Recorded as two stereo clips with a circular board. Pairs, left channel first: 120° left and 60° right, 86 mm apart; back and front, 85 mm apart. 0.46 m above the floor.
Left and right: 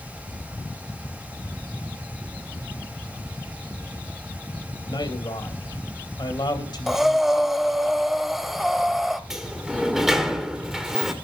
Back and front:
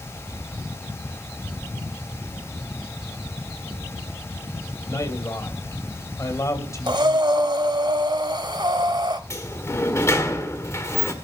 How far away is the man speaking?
About 3 m.